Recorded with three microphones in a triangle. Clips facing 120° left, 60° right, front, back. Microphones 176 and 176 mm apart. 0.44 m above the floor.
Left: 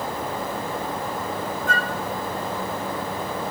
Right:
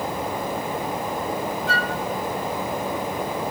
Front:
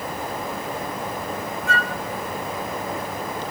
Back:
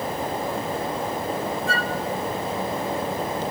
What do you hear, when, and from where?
1.7 s a flute: 135° left, 0.6 m